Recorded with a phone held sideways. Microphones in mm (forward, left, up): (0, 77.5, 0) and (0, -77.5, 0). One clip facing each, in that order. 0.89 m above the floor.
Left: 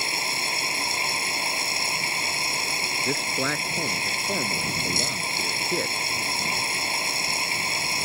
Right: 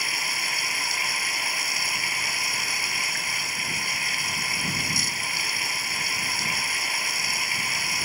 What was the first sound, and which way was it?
Running water, 25° left (ahead or behind).